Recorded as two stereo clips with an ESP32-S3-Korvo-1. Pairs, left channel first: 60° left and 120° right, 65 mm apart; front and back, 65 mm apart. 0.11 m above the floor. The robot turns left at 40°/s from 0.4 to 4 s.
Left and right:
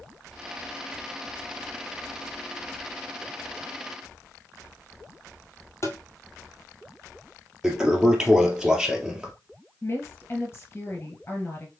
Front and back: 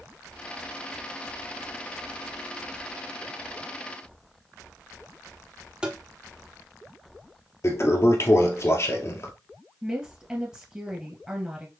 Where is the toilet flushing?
40° right, 1.3 m.